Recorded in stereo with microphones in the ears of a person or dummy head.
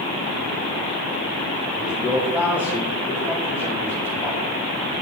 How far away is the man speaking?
About 1.1 m.